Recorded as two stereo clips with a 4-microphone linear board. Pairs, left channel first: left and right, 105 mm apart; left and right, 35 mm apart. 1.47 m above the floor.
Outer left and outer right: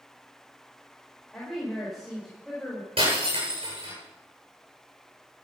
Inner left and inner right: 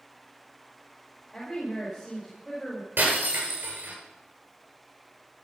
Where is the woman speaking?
Centre (ahead or behind), 5.5 m.